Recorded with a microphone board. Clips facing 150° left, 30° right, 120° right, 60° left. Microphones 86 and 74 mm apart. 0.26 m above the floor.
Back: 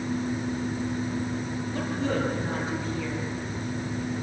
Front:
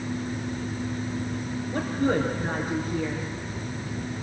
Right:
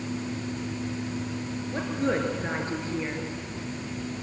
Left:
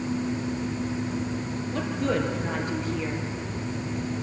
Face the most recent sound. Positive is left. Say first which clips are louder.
# front 4 dB, even
turn(degrees=-60)